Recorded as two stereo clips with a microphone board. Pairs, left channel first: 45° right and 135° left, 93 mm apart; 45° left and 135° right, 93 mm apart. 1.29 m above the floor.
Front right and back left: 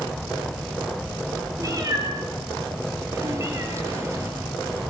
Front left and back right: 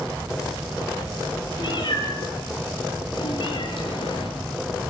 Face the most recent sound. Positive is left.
turn(degrees=70)